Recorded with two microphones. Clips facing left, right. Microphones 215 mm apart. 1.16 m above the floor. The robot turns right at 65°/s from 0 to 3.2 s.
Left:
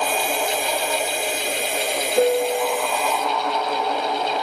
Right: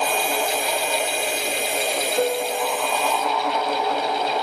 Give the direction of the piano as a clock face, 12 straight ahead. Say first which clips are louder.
Left 6 dB; 9 o'clock.